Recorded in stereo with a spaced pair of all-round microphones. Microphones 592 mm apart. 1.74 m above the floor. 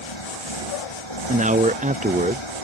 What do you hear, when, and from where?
0.0 s a motorcycle: 50° left (ahead or behind)
1.3 s a man speaking: 15° right (ahead or behind)